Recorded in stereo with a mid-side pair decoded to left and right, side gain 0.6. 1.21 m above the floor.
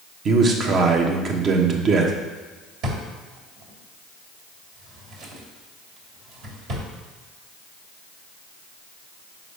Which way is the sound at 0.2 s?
45° right.